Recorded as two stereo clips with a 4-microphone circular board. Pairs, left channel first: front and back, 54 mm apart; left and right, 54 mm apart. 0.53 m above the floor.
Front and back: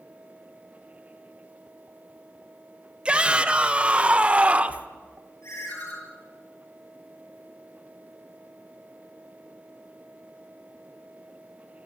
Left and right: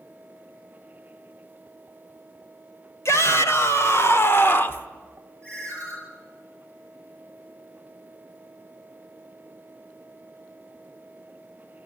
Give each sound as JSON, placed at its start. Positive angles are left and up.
{"t": 3.0, "sound": "a shout", "azimuth_deg": 115, "distance_m": 1.8}
{"t": 5.4, "sound": "a ringtone", "azimuth_deg": 25, "distance_m": 9.0}